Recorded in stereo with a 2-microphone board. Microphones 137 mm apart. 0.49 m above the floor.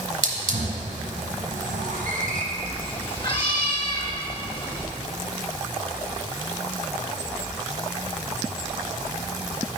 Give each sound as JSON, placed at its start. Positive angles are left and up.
{"t": 0.2, "sound": "a hiss", "side_deg": -85, "distance_m": 1.8}
{"t": 2.5, "sound": "a cat meowing", "side_deg": 40, "distance_m": 1.6}